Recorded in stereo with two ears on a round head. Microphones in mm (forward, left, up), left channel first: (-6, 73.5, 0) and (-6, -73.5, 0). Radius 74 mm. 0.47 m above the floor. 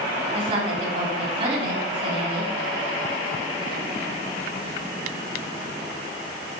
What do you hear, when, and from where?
0.3 s a woman speaking: 35° right (ahead or behind), 2.5 m